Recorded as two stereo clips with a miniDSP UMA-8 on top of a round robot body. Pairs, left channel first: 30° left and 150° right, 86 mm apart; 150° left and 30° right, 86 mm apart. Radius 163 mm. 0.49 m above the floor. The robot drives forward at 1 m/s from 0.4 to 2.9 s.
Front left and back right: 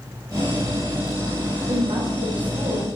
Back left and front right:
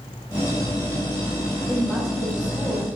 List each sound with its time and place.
1.7 s a woman speaking: 125° right, 4 m; by 3.0 s 140° right, 4.5 m